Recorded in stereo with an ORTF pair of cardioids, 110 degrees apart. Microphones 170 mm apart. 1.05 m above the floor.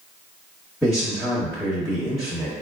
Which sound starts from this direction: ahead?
A man speaking, at 0.8 s.